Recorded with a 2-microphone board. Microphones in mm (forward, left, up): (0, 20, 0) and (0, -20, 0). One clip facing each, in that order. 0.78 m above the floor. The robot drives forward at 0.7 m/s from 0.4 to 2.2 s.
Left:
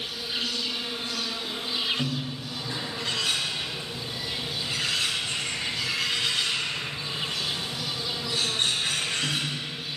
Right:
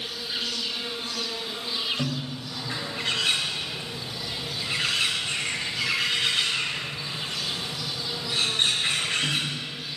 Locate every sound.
0.0 s an insect: 15° left (ahead or behind), 2 m; by 10.0 s 30° left (ahead or behind), 1.0 m
2.0 s a bird: 25° right (ahead or behind), 1.4 m